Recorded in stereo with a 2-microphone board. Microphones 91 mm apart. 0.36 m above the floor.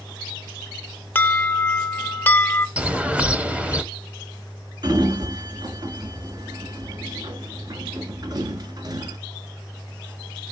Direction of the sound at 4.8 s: 50° right (ahead or behind).